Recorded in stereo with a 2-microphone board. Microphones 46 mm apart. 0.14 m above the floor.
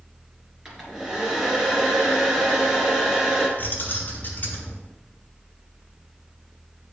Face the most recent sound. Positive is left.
turn(degrees=45)  # may be behind; listen again after turning